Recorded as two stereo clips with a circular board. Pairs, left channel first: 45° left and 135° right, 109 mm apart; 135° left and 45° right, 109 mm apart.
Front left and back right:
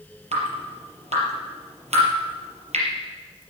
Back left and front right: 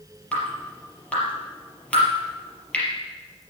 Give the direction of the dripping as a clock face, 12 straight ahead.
5 o'clock.